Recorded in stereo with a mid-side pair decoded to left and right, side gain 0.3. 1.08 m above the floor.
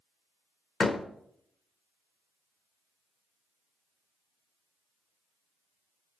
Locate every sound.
0.8 s a door slam: 50° left, 1.0 m